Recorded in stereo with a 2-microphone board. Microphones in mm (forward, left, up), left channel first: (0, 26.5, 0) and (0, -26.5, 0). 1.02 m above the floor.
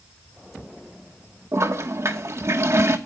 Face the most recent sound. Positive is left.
turn(degrees=-60)  # may be behind; listen again after turning